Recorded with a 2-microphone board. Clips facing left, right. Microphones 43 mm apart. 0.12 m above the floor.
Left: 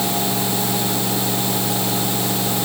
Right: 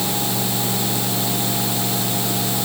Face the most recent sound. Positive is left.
No sound to turn to.